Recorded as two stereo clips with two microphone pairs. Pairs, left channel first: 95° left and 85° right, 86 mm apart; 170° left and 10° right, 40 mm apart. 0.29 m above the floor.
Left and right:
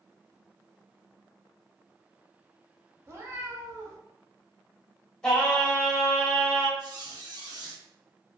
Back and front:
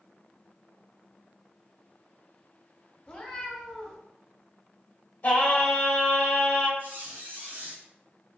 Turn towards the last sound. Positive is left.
turn(degrees=-45)